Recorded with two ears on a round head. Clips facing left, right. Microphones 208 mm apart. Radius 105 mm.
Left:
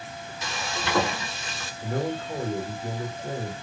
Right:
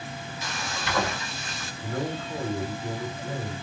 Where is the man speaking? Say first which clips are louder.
Left 2 dB; 35° left (ahead or behind), 2.0 m.